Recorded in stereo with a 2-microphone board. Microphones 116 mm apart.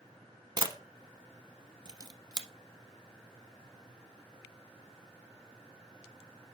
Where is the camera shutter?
40° right (ahead or behind), 0.7 m.